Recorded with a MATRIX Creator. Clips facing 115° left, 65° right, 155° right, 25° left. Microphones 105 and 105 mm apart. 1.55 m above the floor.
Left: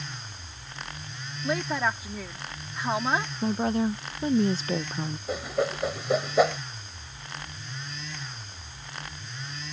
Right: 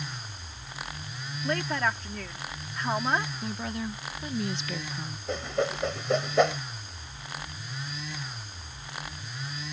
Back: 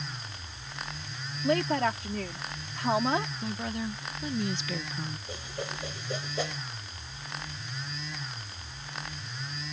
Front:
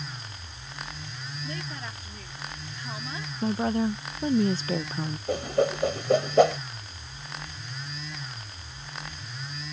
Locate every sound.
1.4 s a woman speaking: 165° right
3.4 s a woman speaking: 65° left
5.3 s a whoosh: 25° left